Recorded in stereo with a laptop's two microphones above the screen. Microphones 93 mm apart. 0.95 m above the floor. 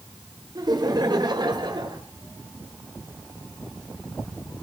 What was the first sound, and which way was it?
Laughter, 50° right (ahead or behind).